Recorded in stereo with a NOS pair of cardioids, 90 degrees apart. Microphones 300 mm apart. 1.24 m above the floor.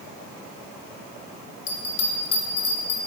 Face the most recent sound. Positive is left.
turn(degrees=50)